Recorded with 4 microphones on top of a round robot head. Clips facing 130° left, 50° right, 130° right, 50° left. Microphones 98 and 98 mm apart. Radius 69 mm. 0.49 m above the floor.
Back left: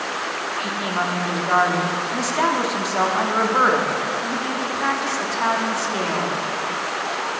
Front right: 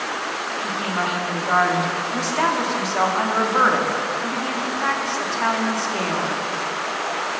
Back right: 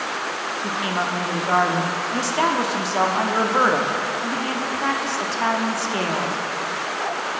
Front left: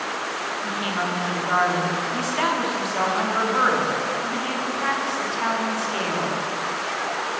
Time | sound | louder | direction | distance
0.6 | a woman speaking | even, back right 3 dB | 150° right | 0.7 m